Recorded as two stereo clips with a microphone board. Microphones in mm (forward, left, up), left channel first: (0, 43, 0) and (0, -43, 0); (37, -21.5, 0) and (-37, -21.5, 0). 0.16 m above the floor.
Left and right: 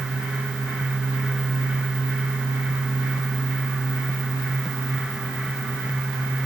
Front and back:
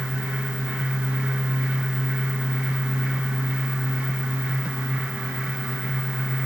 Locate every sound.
Only background noise.